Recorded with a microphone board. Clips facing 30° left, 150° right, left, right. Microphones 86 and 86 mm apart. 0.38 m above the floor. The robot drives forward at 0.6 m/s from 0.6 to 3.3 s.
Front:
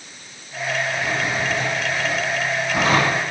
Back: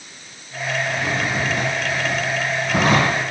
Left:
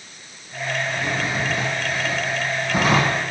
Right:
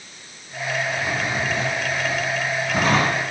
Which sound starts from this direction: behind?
A drawer, at 0.9 s.